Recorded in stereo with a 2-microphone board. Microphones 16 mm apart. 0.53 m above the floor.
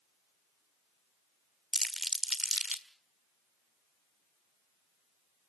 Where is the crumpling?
10° right (ahead or behind), 1.7 m.